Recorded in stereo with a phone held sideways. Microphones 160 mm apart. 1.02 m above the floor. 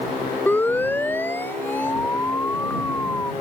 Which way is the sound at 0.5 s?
10° left (ahead or behind).